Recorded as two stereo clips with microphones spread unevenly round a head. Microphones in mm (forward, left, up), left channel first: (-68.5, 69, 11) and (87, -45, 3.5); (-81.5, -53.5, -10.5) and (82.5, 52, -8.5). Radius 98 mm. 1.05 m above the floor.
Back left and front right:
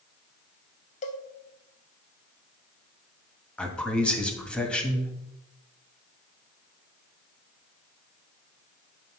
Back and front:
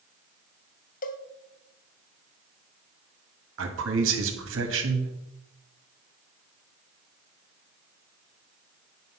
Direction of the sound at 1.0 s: Straight behind.